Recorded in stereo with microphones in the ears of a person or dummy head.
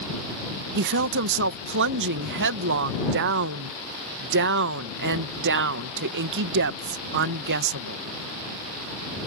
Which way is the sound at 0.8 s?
65° right (ahead or behind).